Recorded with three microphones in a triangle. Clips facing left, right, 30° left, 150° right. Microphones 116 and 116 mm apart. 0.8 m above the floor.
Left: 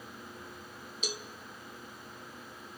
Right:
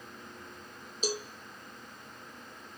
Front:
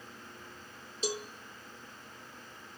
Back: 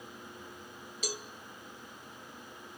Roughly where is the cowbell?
Ahead right.